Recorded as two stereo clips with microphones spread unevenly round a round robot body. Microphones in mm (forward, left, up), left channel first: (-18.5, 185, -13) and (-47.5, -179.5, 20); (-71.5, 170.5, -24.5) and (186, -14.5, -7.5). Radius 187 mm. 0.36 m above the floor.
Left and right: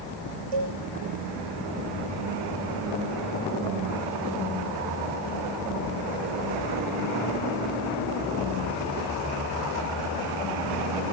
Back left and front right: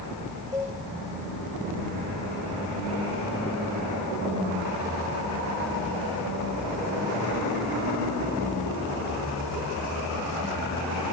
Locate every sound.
0.5 s a cowbell: 115° right, 8 m